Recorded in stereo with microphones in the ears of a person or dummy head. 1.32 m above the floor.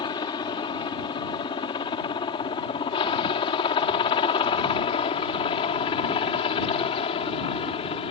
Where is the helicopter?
20° left (ahead or behind); by 8.1 s 25° left (ahead or behind).